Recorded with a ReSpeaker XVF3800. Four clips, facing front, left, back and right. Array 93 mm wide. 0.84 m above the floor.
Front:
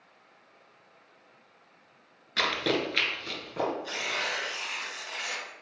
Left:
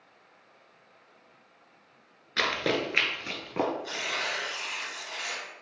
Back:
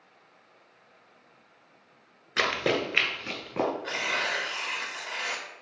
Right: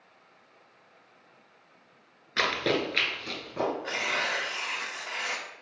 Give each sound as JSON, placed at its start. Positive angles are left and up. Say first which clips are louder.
{"t": 2.4, "sound": "running footsteps", "louder": "right 1 dB, back 2 dB", "azimuth_deg": -160, "distance_m": 0.8}
{"t": 3.8, "sound": "tearing paper", "louder": "right 3 dB, back 3 dB", "azimuth_deg": -135, "distance_m": 0.6}